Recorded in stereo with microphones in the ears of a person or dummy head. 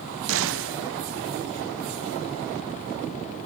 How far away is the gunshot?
About 0.6 m.